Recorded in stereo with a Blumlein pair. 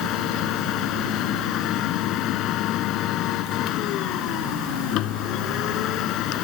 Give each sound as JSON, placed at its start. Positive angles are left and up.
{"t": 0.0, "sound": "a machine running", "azimuth_deg": 35}